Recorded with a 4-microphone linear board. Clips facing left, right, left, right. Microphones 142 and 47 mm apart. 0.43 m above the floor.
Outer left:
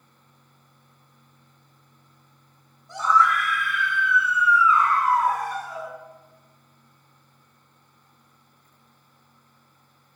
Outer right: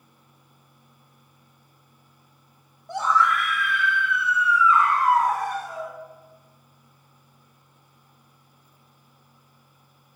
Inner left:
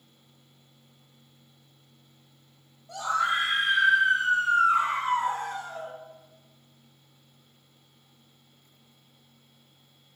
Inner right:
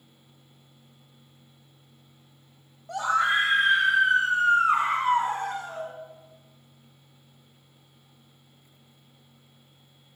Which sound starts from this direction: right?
A scream, at 2.9 s.